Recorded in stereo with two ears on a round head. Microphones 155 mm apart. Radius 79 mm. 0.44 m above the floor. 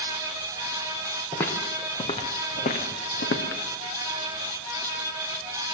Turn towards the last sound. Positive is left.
turn(degrees=65)  # may be behind; listen again after turning